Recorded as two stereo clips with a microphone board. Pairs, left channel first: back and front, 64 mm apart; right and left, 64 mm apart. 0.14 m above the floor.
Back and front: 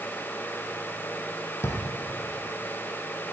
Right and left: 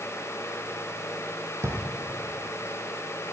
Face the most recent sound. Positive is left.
turn(degrees=130)